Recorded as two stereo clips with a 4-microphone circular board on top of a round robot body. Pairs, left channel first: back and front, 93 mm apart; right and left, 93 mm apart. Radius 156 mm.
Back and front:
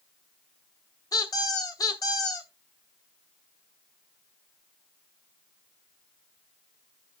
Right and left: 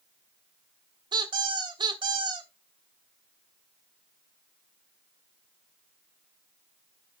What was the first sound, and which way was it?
A squeak, 130° left.